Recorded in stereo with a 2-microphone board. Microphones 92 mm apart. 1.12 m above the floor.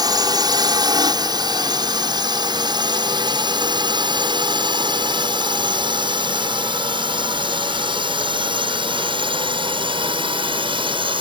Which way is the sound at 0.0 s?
50° right (ahead or behind).